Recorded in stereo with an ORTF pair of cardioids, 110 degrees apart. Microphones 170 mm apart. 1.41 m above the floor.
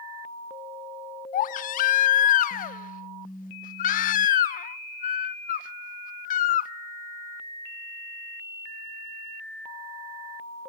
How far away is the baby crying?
About 0.8 m.